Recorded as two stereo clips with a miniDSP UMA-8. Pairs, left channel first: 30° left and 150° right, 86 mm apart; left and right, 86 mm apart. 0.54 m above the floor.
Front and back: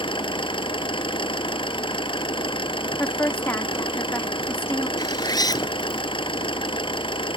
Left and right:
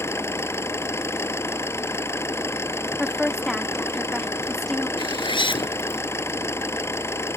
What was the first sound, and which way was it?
An engine running, 30° left.